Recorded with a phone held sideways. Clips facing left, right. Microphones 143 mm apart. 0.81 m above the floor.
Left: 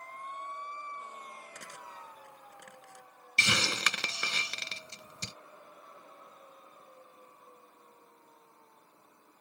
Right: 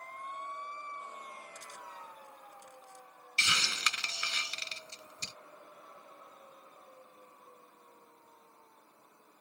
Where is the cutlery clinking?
75° left (ahead or behind).